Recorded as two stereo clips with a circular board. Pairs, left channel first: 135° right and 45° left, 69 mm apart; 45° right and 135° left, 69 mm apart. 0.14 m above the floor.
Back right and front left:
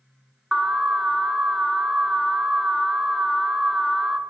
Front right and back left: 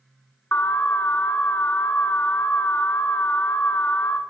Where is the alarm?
30° right, 0.9 m.